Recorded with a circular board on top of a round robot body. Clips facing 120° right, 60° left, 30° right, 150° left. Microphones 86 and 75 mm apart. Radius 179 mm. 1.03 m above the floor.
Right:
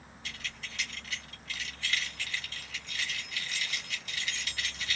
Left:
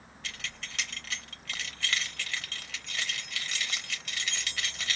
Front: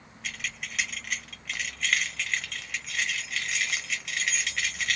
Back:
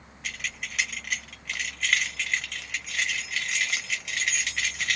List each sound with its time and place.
0.2 s keys jangling: 60° left, 1.3 m